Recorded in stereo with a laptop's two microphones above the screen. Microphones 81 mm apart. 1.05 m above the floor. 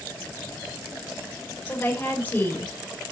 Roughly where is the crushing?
No crushing in this recording.